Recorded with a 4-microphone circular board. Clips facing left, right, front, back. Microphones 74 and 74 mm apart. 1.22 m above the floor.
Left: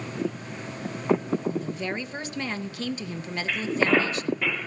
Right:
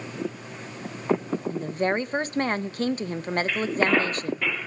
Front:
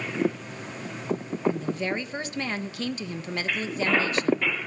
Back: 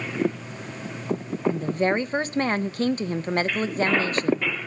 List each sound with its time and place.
1.5 s a woman speaking: 135° right, 0.8 m